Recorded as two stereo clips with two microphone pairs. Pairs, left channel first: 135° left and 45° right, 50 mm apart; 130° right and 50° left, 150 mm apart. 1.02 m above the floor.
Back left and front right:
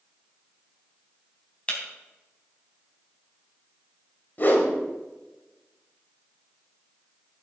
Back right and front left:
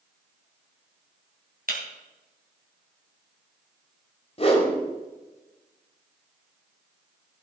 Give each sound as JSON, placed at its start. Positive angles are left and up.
{"t": 1.7, "sound": "breaking glass", "azimuth_deg": 70, "distance_m": 3.0}
{"t": 4.4, "sound": "a whoosh", "azimuth_deg": -175, "distance_m": 1.9}